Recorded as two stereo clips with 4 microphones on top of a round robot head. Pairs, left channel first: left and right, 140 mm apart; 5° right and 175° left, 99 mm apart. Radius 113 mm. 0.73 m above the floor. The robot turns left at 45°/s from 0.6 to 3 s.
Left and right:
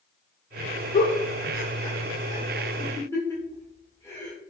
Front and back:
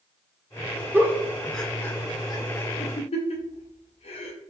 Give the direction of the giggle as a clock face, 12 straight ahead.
8 o'clock.